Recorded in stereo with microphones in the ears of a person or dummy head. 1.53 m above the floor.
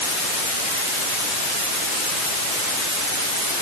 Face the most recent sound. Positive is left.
No sound to turn to.